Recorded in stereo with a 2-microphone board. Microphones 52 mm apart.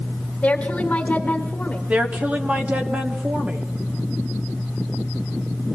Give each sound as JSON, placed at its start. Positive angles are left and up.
{"t": 0.4, "sound": "a woman speaking", "side_deg": 25, "distance_m": 1.9}
{"t": 1.9, "sound": "a woman speaking", "side_deg": -25, "distance_m": 1.1}